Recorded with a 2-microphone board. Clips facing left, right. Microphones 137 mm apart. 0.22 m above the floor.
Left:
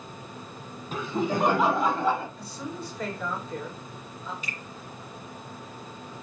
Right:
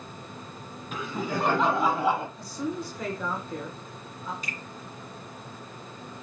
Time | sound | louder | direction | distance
0.9 | laughter | left 4 dB | 35° left (ahead or behind) | 1.3 m
2.4 | a woman speaking | right 4 dB | 15° right (ahead or behind) | 3.5 m
4.4 | a finger snap | right 1 dB | 40° right (ahead or behind) | 2.0 m